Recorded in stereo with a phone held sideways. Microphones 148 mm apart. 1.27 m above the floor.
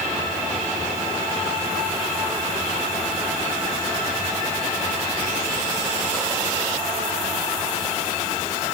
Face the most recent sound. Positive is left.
No sound to turn to.